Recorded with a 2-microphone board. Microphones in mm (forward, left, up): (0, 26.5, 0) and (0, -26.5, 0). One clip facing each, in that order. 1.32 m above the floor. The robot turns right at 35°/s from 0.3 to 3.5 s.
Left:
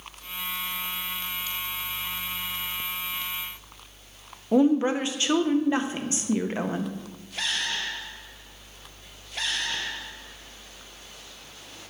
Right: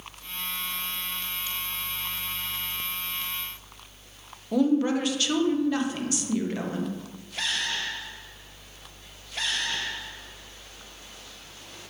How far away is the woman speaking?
About 0.6 m.